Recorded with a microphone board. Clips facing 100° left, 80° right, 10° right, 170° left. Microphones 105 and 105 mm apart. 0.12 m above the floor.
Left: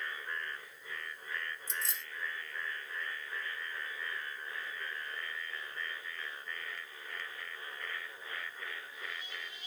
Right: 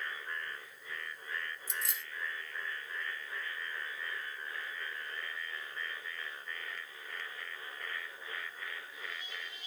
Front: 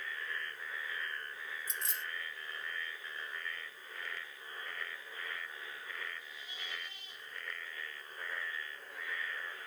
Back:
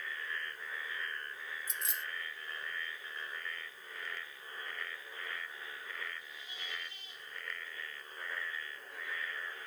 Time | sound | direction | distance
1.7 | keys jangling | 15° right | 1.3 m